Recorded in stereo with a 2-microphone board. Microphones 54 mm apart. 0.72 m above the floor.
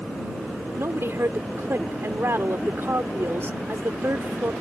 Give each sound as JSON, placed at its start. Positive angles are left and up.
{"t": 0.8, "sound": "a woman speaking", "side_deg": -55}